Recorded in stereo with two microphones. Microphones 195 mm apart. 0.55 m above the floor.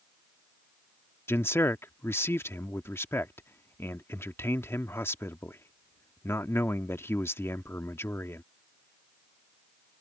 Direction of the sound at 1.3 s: 15° left (ahead or behind).